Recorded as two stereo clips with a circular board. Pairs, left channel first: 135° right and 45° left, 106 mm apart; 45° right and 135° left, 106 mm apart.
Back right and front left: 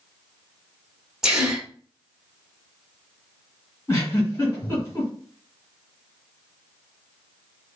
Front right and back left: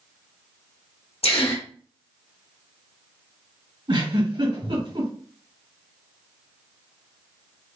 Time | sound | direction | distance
1.2 | a gasp | 40° right | 1.6 m
3.9 | a giggle | 160° left | 2 m